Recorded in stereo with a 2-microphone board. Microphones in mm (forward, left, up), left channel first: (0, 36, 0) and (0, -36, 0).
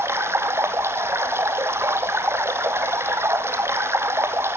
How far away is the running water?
About 1.6 m.